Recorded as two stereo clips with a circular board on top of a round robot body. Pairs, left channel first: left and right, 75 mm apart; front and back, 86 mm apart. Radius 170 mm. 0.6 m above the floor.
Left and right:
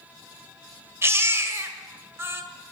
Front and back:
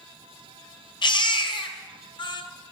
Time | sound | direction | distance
1.0 | a baby crying | 30° right | 1.9 m